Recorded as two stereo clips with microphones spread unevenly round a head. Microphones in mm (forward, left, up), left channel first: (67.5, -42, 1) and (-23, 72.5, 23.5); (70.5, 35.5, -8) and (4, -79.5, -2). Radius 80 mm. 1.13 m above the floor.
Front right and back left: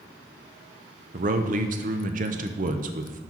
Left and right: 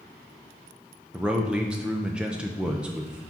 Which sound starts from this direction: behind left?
A man speaking, at 1.1 s.